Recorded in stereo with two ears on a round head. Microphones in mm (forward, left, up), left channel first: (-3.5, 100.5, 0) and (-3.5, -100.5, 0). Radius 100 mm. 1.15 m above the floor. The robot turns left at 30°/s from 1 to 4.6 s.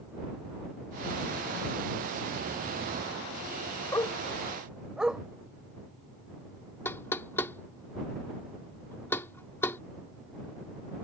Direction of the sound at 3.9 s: 15° left (ahead or behind).